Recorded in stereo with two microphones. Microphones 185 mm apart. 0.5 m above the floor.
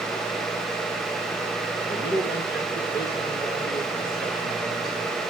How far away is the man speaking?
About 8 m.